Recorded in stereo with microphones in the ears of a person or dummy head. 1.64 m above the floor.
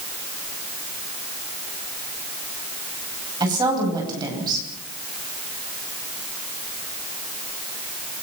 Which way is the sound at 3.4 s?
25° right (ahead or behind).